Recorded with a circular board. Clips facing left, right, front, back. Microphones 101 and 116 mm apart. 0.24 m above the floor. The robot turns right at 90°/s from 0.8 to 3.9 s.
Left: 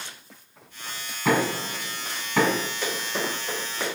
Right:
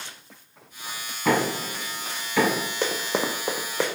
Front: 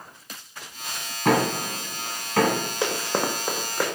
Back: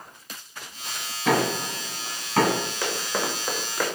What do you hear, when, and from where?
1.2 s knocking: 5° left, 1.9 m; by 2.7 s 130° left, 1.9 m
2.8 s running footsteps: 65° right, 1.0 m; by 3.9 s 80° right, 1.0 m